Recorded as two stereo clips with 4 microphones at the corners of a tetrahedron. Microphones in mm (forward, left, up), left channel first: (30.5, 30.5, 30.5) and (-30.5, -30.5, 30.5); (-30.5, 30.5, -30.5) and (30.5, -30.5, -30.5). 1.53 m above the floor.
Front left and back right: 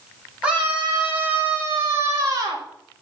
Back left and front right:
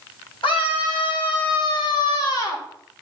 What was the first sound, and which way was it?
A scream, 150° left.